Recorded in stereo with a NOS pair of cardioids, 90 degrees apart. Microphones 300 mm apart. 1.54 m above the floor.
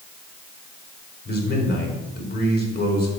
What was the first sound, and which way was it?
A man speaking, 35° left.